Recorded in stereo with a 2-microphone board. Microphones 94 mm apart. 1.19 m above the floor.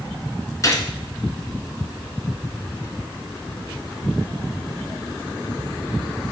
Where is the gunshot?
35° left (ahead or behind), 2.5 m.